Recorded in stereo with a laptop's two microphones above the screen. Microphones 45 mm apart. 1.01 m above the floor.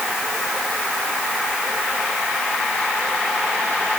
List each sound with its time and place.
Only background noise.